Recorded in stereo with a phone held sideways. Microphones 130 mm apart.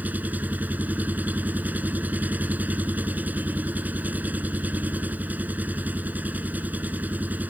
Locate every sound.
0.0 s an engine running: 10° right (ahead or behind)